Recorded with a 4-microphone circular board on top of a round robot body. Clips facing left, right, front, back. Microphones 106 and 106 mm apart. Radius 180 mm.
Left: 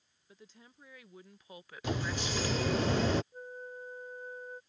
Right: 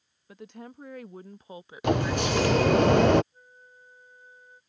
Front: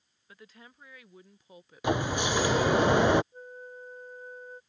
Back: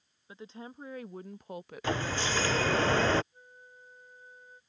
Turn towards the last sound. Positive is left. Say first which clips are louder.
# left 11 dB, front 12 dB
turn(degrees=45)